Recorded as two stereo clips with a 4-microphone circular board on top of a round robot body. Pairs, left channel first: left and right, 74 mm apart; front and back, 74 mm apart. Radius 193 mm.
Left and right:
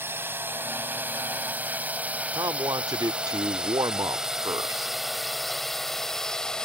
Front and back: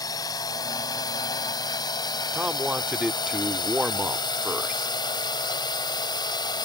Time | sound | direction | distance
0.0 | a drone | 30° right | ?
2.3 | a man speaking | 100° right | ?